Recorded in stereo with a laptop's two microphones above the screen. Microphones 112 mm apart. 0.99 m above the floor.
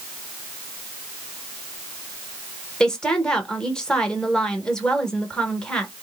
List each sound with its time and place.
2.8 s a woman speaking: 5° left (ahead or behind), 1.2 m